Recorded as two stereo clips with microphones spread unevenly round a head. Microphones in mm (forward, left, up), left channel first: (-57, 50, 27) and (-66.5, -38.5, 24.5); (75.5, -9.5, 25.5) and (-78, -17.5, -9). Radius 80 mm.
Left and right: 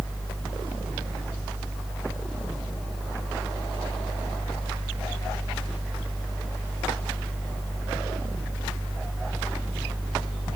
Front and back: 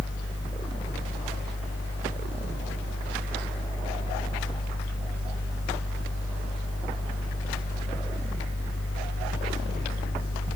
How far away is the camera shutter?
I don't hear a camera shutter.